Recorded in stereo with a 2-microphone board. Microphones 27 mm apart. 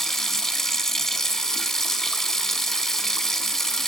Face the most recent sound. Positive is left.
turn(degrees=15)  # may be behind; listen again after turning